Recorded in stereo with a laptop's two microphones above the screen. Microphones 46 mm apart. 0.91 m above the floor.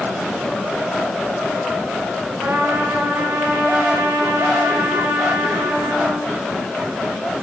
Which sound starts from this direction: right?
A trumpet, at 2.4 s.